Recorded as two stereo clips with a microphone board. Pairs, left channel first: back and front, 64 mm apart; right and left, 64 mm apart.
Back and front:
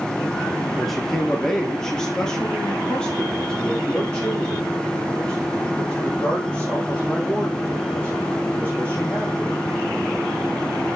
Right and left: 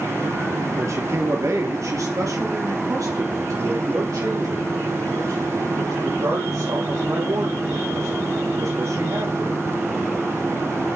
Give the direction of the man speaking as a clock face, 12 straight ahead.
9 o'clock.